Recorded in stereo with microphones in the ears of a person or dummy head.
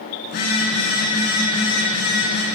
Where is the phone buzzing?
60° left (ahead or behind), 6.5 m.